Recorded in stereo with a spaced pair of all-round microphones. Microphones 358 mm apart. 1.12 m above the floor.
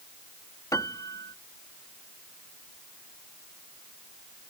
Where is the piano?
10° left (ahead or behind).